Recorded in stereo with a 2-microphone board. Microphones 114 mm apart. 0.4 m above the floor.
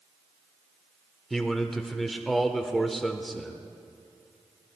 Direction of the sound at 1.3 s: Centre (ahead or behind).